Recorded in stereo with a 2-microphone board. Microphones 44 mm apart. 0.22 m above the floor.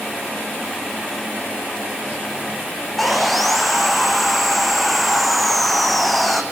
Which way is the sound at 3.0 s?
Centre (ahead or behind).